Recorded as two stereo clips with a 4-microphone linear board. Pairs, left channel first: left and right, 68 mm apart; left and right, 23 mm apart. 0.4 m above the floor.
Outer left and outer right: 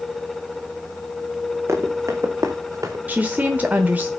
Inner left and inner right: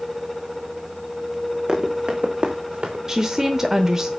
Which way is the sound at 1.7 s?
40° right (ahead or behind).